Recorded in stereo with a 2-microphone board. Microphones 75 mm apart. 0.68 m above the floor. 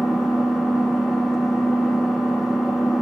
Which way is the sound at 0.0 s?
5° right (ahead or behind).